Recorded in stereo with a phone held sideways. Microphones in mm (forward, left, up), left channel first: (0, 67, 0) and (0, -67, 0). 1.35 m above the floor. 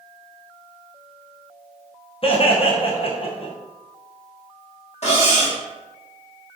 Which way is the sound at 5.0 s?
55° left (ahead or behind).